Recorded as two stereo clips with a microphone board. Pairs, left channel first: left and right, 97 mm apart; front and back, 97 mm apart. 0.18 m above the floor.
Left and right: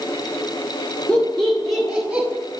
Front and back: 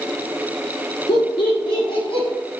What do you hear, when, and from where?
1.1 s laughter: 15° left, 3 m; by 2.3 s 10° right, 3.5 m